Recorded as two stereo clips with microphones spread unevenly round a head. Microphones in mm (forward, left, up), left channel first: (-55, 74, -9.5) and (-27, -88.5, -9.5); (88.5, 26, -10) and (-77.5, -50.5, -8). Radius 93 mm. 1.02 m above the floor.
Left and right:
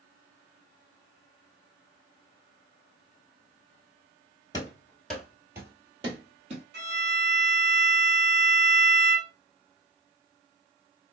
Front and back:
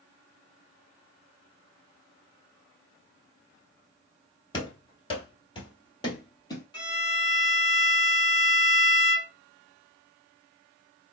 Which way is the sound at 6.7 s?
40° right.